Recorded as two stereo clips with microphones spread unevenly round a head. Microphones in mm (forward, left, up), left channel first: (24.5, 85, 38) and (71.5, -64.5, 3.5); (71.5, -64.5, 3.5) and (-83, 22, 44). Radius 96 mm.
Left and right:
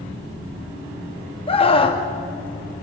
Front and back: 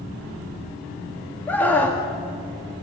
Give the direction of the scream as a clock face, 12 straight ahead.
10 o'clock.